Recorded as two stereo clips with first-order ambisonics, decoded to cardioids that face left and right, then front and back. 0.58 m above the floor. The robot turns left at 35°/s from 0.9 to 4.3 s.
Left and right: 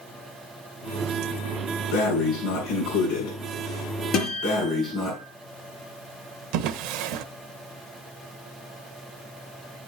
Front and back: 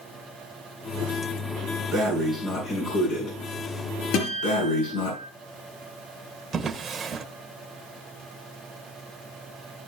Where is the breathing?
100° left, 7 m; by 5.1 s 15° left, 7 m.